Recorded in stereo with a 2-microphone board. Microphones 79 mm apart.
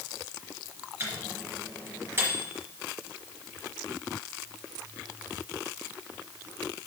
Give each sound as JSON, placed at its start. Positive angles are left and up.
{"t": 1.0, "sound": "a microwave", "side_deg": -25, "distance_m": 2.5}